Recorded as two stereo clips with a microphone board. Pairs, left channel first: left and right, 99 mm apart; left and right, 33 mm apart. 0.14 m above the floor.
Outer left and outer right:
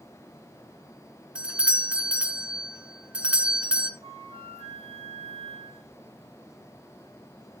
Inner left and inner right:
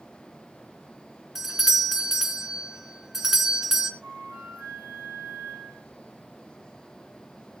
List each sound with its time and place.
1.4 s a doorbell: 10° right (ahead or behind), 1.8 m
4.0 s a flute: 70° right (ahead or behind), 3.5 m